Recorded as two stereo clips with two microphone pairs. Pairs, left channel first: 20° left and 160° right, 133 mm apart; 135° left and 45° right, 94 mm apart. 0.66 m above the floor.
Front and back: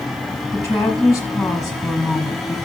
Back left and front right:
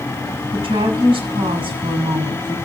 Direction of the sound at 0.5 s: 50° right.